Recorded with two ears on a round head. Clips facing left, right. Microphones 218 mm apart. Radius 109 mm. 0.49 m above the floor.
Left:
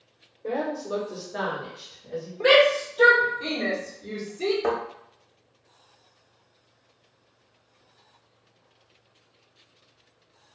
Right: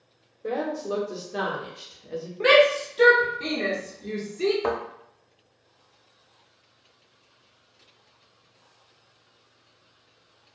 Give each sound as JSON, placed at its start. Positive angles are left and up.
{"t": 0.4, "sound": "a woman speaking", "side_deg": -20, "distance_m": 1.0}
{"t": 2.4, "sound": "a shout", "side_deg": -30, "distance_m": 1.0}
{"t": 4.6, "sound": "a thud", "side_deg": -5, "distance_m": 0.8}